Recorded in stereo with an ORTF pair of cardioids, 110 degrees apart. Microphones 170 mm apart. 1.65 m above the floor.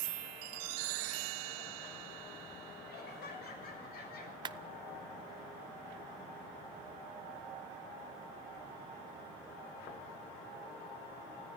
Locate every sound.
2.9 s laughter: 65° left, 6 m; by 4.3 s 60° left, 7.5 m
4.5 s a clap: 25° right, 0.9 m